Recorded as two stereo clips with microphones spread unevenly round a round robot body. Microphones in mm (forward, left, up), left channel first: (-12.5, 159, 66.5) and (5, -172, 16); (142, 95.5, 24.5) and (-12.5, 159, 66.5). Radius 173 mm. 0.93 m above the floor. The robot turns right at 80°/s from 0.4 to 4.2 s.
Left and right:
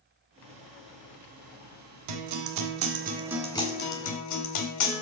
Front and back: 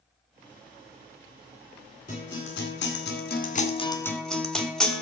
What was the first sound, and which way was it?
A guitar, 95° right.